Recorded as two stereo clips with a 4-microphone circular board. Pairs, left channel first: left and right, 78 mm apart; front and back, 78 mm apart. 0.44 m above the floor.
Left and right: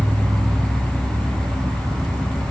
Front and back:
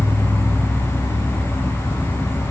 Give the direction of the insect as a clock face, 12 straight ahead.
2 o'clock.